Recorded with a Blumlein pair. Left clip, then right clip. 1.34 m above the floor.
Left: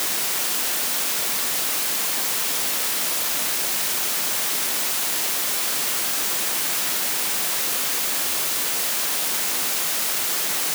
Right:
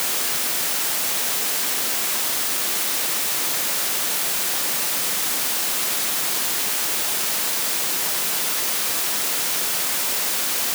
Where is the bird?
I don't hear a bird.